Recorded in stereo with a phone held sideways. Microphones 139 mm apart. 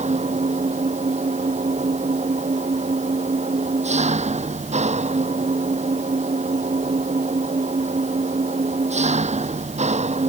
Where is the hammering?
I don't hear hammering.